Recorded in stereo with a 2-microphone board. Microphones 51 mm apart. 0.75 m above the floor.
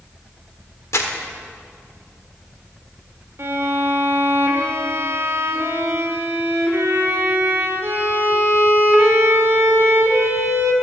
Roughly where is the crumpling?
Left.